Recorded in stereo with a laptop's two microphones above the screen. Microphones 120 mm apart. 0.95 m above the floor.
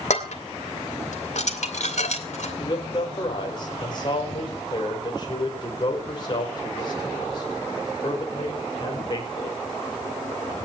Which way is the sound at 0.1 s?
75° left (ahead or behind).